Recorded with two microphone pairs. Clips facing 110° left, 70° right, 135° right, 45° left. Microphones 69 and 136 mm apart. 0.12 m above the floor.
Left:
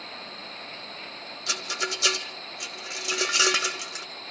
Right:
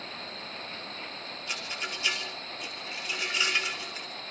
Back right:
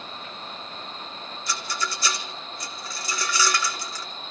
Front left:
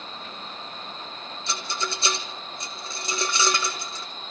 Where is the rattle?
110° left, 1.6 m.